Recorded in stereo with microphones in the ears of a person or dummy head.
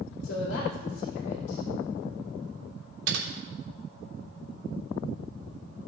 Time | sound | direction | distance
0.2 | a woman speaking | 75° left (ahead or behind) | 3 m
3.1 | typing on a keyboard | 70° right (ahead or behind) | 2 m